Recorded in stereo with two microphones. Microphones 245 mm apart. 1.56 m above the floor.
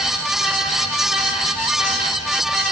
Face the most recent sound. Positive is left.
No sound to turn to.